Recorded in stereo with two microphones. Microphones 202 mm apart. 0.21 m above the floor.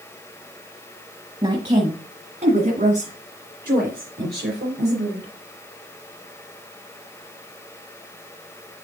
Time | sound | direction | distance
1.4 | a woman speaking | 25° right (ahead or behind) | 1.5 m